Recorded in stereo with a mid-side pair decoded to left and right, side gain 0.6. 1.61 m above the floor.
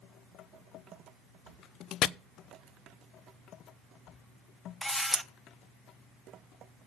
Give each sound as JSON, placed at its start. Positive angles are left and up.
{"t": 2.0, "sound": "chopping", "azimuth_deg": 60, "distance_m": 0.6}
{"t": 4.8, "sound": "a camera shutter", "azimuth_deg": 10, "distance_m": 0.9}